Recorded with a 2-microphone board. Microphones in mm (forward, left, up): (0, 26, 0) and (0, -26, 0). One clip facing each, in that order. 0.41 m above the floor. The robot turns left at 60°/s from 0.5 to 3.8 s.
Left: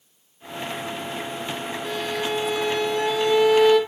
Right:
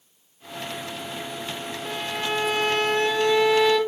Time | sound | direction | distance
1.8 | a violin | 10° right | 4.5 m